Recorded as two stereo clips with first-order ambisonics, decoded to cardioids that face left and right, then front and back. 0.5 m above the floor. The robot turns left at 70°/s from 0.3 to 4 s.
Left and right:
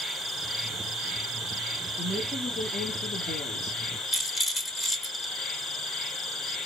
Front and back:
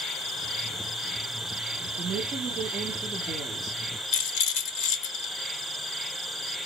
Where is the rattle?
15° left, 1.0 m.